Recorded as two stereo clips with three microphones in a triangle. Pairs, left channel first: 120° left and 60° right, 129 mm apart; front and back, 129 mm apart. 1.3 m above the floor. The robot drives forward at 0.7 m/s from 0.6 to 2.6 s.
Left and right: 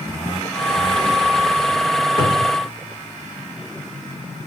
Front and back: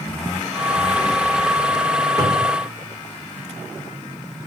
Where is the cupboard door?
135° left, 1.1 m; by 2.6 s 150° left, 1.3 m.